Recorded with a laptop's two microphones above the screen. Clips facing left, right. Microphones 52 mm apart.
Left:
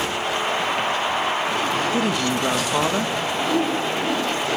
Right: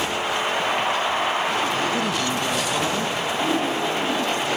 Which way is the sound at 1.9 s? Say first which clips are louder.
Left 2 dB; 25° left (ahead or behind).